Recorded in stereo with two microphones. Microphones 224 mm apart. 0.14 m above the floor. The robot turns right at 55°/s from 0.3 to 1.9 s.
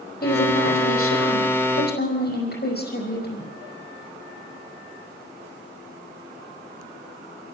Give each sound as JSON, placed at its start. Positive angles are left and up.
{"t": 0.2, "sound": "a woman speaking", "azimuth_deg": 45, "distance_m": 5.0}